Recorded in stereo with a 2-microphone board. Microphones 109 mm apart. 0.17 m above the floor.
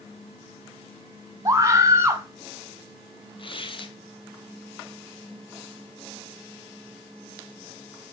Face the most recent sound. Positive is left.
turn(degrees=50)  # may be behind; listen again after turning